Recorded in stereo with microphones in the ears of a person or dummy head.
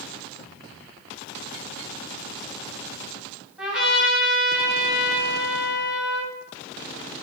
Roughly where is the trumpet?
Centre.